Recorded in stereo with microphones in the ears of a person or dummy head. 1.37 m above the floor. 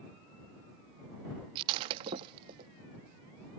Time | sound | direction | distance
1.6 | breaking glass | 20° right (ahead or behind) | ?